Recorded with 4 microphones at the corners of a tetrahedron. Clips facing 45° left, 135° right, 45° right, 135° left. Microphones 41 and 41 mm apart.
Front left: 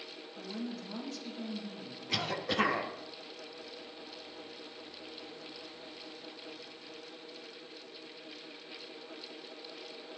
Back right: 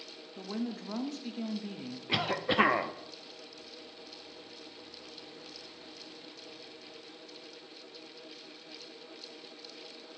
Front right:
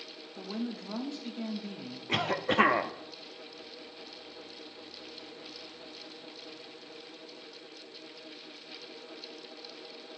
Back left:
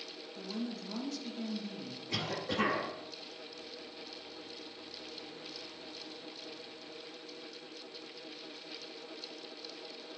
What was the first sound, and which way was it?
A woman speaking, 100° right.